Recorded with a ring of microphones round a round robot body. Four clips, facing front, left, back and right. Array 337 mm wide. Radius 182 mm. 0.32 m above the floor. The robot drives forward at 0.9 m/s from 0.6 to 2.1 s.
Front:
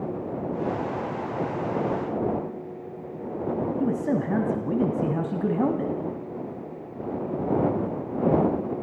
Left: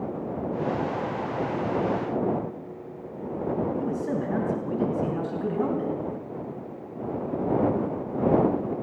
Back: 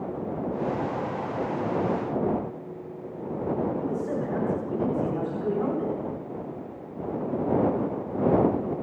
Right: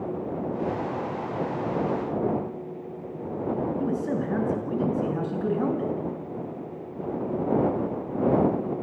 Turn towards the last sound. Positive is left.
turn(degrees=-10)